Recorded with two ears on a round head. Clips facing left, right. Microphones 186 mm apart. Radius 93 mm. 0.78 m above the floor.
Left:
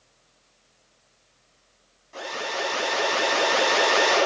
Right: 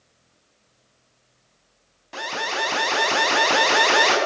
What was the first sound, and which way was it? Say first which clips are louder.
An alarm: right 2 dB; 80° right.